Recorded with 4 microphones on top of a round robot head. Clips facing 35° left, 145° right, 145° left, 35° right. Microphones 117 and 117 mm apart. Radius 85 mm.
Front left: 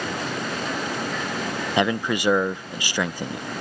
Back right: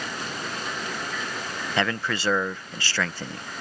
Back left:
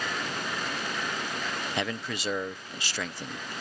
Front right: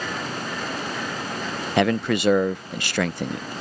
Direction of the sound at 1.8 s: 35° right.